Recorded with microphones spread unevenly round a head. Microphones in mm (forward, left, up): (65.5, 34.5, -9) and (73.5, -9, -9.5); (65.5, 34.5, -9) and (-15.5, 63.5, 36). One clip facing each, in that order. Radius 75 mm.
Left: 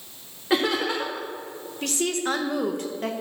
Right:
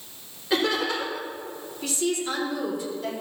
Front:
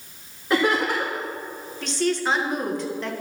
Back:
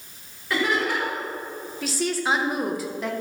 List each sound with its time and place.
0.5 s laughter: 45° left, 2.5 m
1.8 s a woman speaking: 75° left, 1.9 m